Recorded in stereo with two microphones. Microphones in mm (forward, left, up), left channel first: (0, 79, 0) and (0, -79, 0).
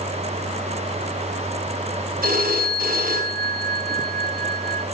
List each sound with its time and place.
2.2 s a phone ringing: 70° right (ahead or behind), 4.5 m